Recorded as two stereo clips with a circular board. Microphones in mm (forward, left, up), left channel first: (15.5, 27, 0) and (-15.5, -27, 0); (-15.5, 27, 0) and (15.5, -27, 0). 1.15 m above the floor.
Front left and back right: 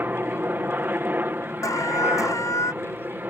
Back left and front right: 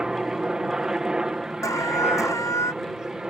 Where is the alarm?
90° left.